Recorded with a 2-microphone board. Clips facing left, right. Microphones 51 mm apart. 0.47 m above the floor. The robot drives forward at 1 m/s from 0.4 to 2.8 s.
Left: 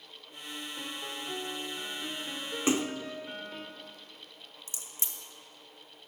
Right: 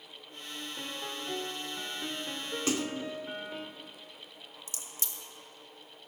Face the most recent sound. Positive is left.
turn(degrees=30)  # may be behind; listen again after turning